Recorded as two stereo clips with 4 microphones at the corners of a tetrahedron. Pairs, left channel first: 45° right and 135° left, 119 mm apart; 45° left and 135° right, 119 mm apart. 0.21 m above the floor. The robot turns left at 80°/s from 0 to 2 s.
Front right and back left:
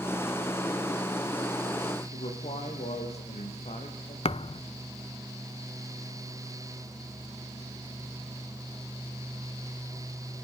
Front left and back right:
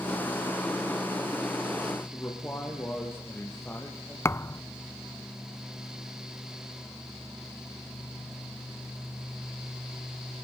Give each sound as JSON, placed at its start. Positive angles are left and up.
{"t": 2.1, "sound": "a man speaking", "azimuth_deg": -25, "distance_m": 7.0}
{"t": 4.2, "sound": "a thud", "azimuth_deg": -20, "distance_m": 0.6}